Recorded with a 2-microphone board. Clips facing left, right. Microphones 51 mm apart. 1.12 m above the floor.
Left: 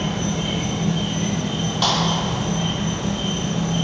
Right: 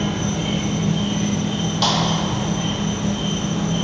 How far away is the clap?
About 1.1 m.